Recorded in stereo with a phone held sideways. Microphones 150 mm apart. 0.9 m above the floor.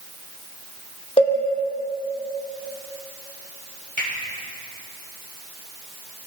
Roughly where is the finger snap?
Left.